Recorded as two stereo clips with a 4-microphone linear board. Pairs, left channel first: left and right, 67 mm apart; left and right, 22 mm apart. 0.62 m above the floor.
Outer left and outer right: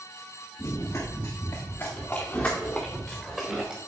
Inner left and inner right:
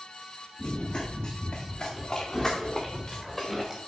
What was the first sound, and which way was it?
Running footsteps, 50° left (ahead or behind).